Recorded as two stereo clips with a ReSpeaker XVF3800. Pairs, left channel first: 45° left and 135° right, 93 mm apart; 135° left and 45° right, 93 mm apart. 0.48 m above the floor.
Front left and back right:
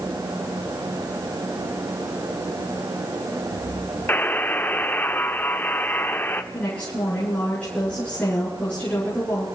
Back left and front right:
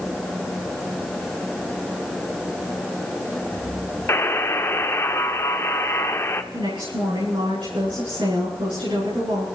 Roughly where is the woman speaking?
Ahead right.